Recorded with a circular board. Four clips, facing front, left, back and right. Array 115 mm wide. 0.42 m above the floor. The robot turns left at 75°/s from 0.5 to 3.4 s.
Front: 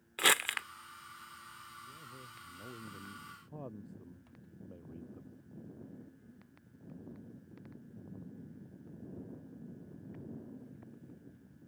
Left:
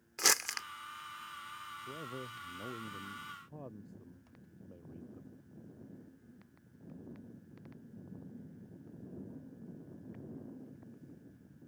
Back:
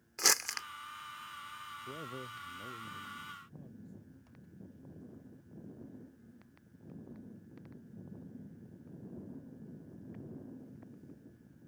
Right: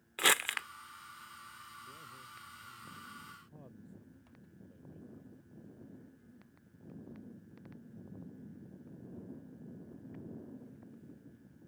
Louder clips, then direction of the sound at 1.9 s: Left 8 dB, back 8 dB; 145° left.